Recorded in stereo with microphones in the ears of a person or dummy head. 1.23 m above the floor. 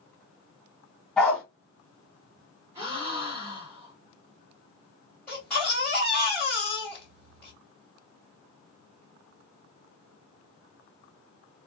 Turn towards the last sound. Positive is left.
turn(degrees=10)  # may be behind; listen again after turning